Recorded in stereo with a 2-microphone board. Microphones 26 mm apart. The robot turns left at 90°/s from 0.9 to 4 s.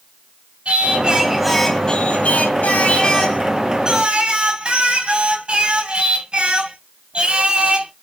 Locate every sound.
0.7 s singing: 125° right, 2.5 m; by 7.9 s 45° right, 2.5 m